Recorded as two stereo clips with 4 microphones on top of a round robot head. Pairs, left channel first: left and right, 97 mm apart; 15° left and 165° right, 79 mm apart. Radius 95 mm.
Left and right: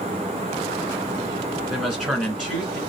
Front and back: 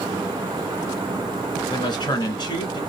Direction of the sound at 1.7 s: 5° right.